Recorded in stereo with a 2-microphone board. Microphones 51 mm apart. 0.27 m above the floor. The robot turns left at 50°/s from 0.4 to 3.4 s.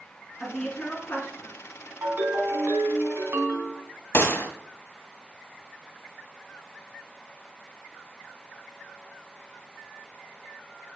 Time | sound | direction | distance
0.4 | a woman speaking | centre (ahead or behind) | 3.5 m
2.0 | a ringtone | 50° right | 1.7 m
4.1 | a gunshot | 50° left (ahead or behind) | 1.4 m